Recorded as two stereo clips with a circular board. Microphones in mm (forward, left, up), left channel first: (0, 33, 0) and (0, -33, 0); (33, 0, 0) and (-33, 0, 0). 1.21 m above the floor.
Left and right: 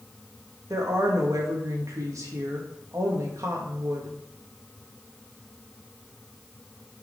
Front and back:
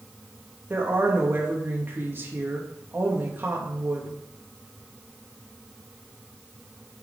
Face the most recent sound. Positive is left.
turn(degrees=-125)